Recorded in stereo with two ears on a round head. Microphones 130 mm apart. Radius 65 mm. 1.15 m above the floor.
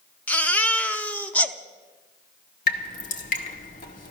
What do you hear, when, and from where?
0.3 s a baby crying: 10° left (ahead or behind), 0.8 m
2.7 s dripping: 60° left (ahead or behind), 1.8 m